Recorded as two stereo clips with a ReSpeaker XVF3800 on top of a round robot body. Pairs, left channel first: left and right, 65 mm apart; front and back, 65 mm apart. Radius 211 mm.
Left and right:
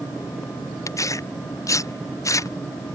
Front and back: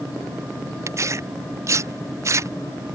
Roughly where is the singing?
No singing in this recording.